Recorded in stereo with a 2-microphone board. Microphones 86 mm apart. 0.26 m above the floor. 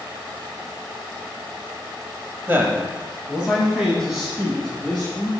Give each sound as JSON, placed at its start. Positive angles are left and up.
{"t": 2.5, "sound": "a man speaking", "side_deg": -25, "distance_m": 1.0}